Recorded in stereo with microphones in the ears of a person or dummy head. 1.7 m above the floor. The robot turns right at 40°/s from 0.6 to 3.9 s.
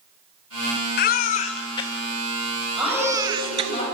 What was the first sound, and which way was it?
A baby crying, 45° left (ahead or behind).